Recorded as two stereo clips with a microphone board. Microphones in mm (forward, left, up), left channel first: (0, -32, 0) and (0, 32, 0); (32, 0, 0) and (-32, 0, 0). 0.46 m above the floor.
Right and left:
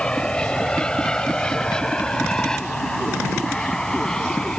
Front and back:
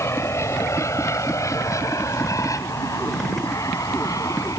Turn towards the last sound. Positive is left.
turn(degrees=-10)